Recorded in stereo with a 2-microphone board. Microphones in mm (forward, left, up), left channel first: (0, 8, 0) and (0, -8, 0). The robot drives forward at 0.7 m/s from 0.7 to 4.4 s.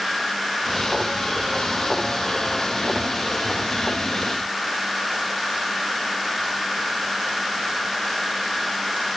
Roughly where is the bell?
No bell in this recording.